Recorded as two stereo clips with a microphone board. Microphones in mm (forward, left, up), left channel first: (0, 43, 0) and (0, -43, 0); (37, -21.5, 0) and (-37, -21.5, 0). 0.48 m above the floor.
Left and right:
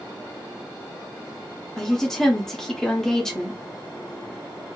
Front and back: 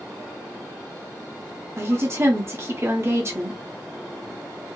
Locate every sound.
1.8 s a woman speaking: 170° left, 0.8 m